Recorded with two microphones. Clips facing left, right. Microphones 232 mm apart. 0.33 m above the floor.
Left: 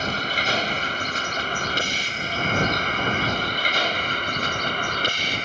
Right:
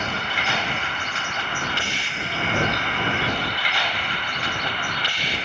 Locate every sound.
0.0 s a vehicle: 40° left (ahead or behind); by 5.5 s 45° left (ahead or behind)